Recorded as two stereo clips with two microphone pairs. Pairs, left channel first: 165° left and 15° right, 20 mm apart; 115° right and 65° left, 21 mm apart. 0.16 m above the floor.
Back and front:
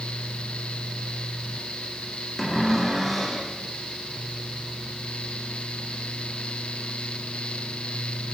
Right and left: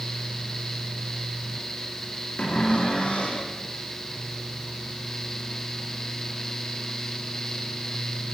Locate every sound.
2.4 s a cupboard door: 110° right, 6.5 m